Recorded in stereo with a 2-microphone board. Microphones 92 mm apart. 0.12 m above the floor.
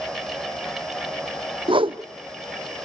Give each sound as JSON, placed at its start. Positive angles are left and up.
{"t": 1.7, "sound": "a whoosh", "side_deg": -65, "distance_m": 1.1}